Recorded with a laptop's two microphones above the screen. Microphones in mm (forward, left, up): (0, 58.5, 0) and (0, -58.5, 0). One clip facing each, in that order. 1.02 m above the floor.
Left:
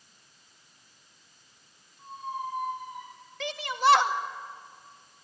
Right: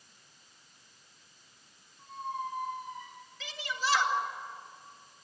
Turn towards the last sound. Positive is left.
turn(degrees=65)  # may be behind; listen again after turning